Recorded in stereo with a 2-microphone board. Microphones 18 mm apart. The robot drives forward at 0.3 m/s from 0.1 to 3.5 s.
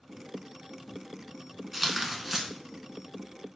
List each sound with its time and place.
1.7 s tearing paper: 15° right (ahead or behind), 0.7 m; by 2.5 s 10° right (ahead or behind), 0.8 m